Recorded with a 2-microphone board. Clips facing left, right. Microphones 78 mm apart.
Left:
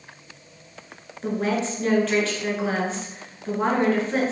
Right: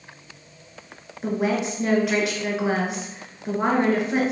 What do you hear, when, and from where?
1.2 s a woman speaking: 10° right (ahead or behind), 1.2 m